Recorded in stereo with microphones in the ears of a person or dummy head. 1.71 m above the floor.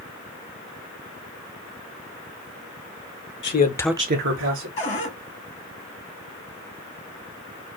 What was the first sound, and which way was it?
A man speaking, 45° left (ahead or behind).